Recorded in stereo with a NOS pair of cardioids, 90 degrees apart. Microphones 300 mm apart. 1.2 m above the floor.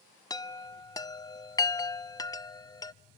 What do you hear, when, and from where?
0.3 s a chime: 15° left, 0.5 m